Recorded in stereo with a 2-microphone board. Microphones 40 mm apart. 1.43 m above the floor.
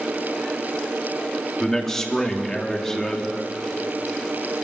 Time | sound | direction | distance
1.6 | a man speaking | 10° left (ahead or behind) | 3.5 m